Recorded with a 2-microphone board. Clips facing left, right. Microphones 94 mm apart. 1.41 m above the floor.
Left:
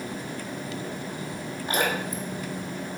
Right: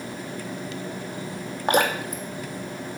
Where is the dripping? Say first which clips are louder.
Right 5 dB; 75° right (ahead or behind), 2 m.